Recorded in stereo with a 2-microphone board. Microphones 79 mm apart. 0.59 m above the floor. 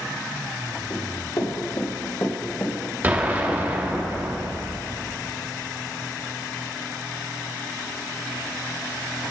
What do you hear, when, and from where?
0.9 s running footsteps: 55° left (ahead or behind), 4.5 m; by 4.0 s 20° right (ahead or behind), 2 m
3.0 s an explosion: 25° right (ahead or behind), 1.4 m